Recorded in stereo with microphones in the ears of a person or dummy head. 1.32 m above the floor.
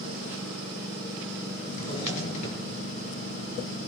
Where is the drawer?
40° left (ahead or behind), 5.5 m.